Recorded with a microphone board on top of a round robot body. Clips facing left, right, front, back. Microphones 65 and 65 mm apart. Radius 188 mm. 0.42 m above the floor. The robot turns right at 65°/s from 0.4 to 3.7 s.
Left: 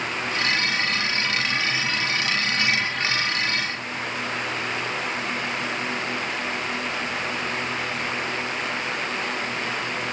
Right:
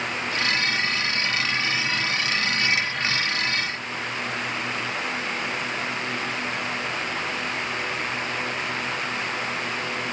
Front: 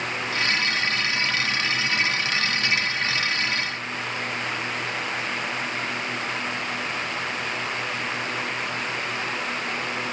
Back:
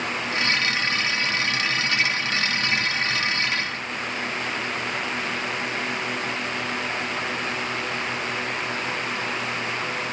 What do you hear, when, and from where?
Only background noise.